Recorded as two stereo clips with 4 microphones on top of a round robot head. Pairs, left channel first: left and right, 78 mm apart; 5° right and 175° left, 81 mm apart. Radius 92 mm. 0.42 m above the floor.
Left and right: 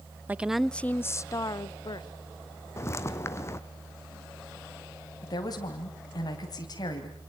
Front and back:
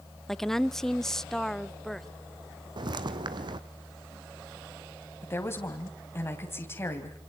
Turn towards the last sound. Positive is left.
turn(degrees=55)